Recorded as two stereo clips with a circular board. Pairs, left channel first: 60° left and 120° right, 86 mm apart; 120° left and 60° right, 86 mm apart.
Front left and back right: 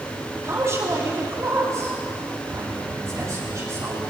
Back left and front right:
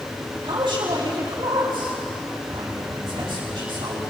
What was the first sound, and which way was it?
A man speaking, 65° right.